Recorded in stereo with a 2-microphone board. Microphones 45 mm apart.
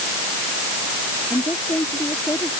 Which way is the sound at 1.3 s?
70° left (ahead or behind).